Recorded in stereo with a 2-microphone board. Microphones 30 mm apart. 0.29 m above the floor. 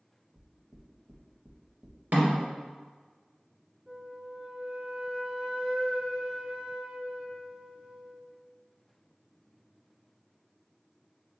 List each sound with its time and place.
0.3 s knocking: 20° right (ahead or behind), 0.7 m
2.1 s a snare drum: 65° right (ahead or behind), 1.8 m
3.9 s a flute: 30° right (ahead or behind), 0.8 m